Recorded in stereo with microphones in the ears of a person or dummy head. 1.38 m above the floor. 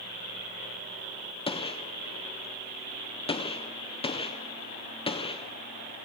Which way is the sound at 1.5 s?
25° left (ahead or behind).